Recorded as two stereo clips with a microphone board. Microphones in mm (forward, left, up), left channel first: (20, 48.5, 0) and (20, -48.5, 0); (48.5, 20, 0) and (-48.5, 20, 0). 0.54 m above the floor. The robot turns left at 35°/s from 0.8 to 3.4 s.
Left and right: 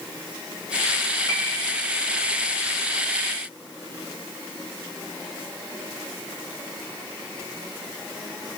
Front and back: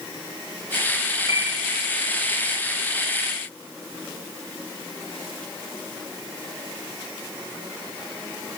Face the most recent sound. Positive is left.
turn(degrees=-40)